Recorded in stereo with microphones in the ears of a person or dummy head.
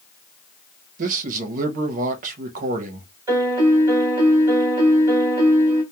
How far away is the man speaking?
About 0.7 m.